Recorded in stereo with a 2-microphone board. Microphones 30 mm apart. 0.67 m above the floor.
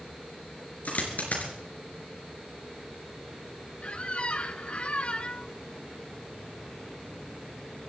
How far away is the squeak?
About 0.7 m.